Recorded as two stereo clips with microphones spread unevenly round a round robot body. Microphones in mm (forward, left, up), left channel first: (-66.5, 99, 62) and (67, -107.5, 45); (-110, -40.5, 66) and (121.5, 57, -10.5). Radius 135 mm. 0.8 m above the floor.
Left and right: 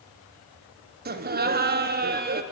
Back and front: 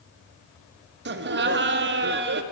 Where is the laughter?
10° right, 1.3 m.